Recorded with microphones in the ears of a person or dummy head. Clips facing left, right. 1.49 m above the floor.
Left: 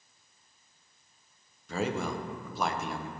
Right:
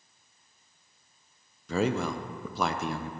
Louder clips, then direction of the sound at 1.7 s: Right 4 dB; 65° right (ahead or behind).